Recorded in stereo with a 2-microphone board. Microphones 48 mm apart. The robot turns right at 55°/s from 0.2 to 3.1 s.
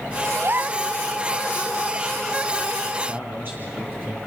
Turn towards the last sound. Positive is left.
turn(degrees=-45)  # may be behind; listen again after turning